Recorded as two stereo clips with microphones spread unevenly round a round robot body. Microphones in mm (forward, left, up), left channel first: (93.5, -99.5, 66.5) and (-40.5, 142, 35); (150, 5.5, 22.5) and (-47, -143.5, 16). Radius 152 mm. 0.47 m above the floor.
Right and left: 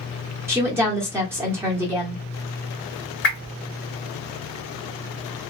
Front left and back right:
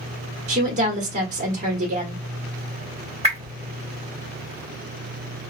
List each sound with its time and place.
0.5 s a woman speaking: 175° right, 1.4 m
3.2 s a whoosh: 95° right, 1.4 m